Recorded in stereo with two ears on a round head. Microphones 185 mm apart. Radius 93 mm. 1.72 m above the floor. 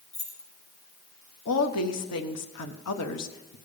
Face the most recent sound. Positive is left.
turn(degrees=80)